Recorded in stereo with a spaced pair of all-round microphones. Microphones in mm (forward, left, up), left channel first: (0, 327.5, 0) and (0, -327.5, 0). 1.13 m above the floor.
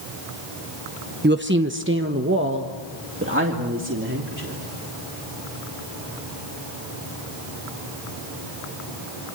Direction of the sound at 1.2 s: 15° right (ahead or behind).